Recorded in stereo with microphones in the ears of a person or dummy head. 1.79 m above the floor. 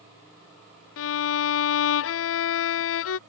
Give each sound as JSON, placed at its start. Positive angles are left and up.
{"t": 1.0, "sound": "a violin", "side_deg": 75}